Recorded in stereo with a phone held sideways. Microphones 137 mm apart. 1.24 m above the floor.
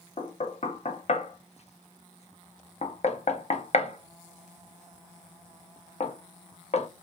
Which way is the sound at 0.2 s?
50° left (ahead or behind).